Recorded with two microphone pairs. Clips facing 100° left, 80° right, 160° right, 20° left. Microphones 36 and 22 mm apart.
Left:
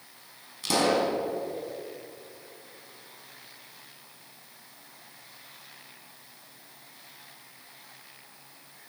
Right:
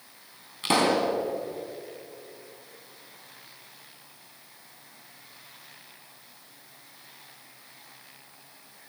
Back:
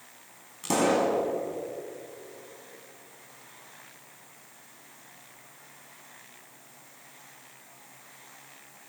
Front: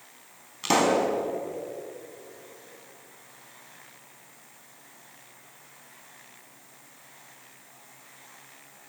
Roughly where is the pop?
Ahead right.